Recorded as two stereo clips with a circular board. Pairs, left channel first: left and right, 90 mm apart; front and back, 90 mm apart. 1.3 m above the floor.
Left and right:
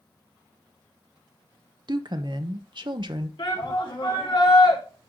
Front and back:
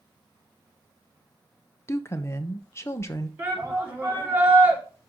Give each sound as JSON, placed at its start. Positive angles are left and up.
{"t": 1.9, "sound": "a woman speaking", "azimuth_deg": -60, "distance_m": 0.9}
{"t": 3.4, "sound": "a shout", "azimuth_deg": 115, "distance_m": 3.0}